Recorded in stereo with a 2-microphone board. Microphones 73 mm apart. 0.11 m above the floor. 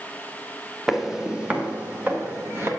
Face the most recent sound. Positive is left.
turn(degrees=-35)  # may be behind; listen again after turning